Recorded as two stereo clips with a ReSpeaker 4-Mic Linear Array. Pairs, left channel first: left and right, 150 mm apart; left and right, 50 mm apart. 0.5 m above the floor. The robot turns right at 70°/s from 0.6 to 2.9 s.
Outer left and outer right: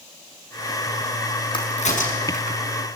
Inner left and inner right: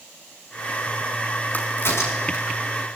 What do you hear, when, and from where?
1.5 s a crack: 35° left (ahead or behind), 5.5 m; by 2.6 s 70° left (ahead or behind), 5.5 m